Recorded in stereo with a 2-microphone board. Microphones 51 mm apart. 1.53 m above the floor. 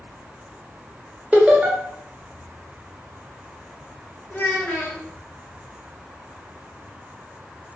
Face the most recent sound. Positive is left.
turn(degrees=35)  # may be behind; listen again after turning